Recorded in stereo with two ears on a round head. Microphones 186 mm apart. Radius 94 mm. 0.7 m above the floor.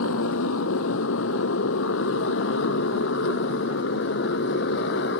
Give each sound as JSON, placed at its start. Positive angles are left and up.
{"t": 0.0, "sound": "a motorcycle", "side_deg": 75}